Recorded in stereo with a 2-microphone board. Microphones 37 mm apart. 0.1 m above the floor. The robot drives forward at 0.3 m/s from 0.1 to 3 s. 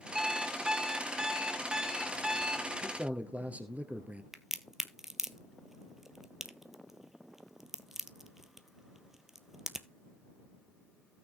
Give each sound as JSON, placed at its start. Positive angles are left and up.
{"t": 0.1, "sound": "an alarm clock", "side_deg": -15, "distance_m": 0.7}
{"t": 2.8, "sound": "a man speaking", "side_deg": -45, "distance_m": 1.6}
{"t": 4.3, "sound": "a crack", "side_deg": -10, "distance_m": 0.6}